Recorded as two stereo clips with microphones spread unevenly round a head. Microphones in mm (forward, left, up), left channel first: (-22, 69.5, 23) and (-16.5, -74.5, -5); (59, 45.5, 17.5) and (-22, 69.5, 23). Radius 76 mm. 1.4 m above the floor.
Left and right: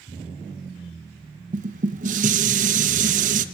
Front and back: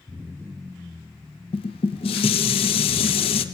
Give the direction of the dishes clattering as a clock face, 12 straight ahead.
1 o'clock.